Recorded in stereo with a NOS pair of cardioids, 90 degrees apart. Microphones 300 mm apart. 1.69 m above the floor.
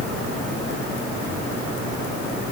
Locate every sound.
Only background noise.